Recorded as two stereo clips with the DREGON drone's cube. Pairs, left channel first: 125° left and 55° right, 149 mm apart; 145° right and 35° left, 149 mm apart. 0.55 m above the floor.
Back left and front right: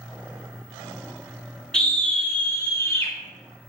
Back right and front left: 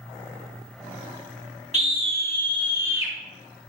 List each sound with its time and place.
1.7 s a scream: 45° left, 1.7 m; by 3.1 s 90° left, 1.3 m